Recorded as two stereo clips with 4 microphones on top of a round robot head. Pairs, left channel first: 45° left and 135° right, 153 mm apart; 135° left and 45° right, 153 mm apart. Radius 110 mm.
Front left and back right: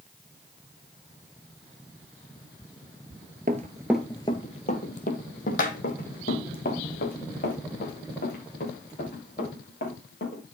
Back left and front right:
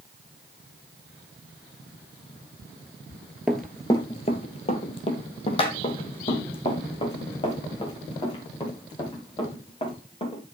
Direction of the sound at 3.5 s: 130° right.